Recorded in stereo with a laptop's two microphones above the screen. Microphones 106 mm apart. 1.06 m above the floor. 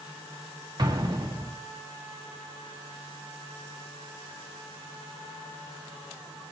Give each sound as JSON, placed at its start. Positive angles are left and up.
{"t": 0.8, "sound": "an explosion", "side_deg": -40, "distance_m": 1.7}